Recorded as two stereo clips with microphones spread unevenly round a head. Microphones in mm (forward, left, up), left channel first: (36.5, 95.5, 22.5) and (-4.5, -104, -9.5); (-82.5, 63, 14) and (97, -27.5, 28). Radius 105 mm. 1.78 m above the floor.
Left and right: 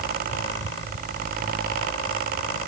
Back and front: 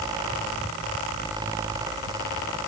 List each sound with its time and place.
Only background noise.